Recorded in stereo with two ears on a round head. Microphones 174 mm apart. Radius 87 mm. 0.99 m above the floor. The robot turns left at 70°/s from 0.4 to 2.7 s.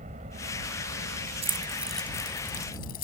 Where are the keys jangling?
35° right (ahead or behind); by 3.0 s 55° left (ahead or behind).